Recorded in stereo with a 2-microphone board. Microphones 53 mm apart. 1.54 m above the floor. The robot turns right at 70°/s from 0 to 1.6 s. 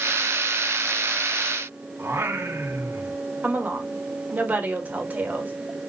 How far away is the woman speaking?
About 2 m.